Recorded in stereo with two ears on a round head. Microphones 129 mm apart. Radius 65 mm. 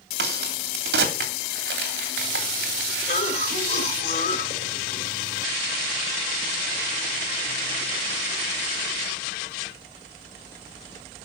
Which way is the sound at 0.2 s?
75° right (ahead or behind).